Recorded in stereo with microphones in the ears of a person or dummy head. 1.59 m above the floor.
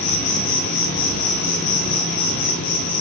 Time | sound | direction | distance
0.0 | an insect | 60° left (ahead or behind) | 2 m